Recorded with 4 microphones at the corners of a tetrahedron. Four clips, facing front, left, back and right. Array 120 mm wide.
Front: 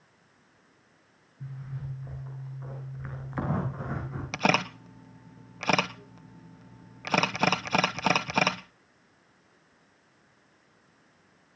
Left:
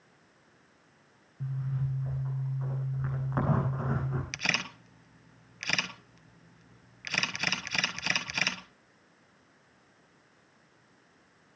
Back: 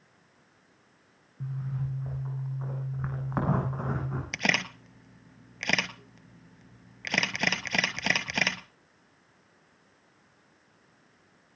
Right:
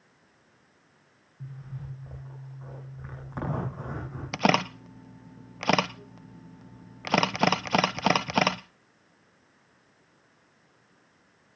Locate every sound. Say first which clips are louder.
1.4 s a zipper: left 7 dB, back 5 dB; 165° left, 9.5 m
4.3 s a camera shutter: right 11 dB, front 6 dB; 75° right, 0.8 m